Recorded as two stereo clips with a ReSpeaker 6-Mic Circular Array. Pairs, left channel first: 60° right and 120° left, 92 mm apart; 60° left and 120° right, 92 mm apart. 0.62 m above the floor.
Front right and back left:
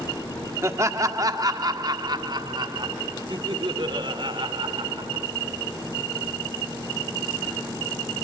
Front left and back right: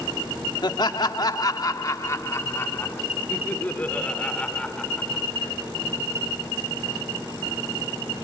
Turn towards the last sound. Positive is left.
turn(degrees=140)